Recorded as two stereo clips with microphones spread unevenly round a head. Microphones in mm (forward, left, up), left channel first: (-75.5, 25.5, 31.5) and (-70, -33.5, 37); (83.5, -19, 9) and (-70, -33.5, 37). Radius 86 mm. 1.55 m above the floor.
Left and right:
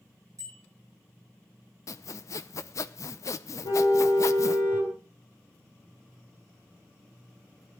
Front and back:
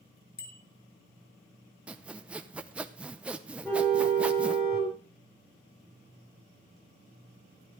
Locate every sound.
0.4 s a bicycle bell: 20° right, 3.5 m
1.9 s sawing: 110° left, 0.6 m
3.6 s a car horn: 85° left, 6.5 m